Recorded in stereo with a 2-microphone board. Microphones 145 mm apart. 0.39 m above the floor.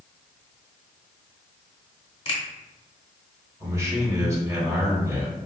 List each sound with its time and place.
2.2 s a finger snap: 45° left (ahead or behind), 1.1 m
3.6 s a man speaking: 20° right (ahead or behind), 1.1 m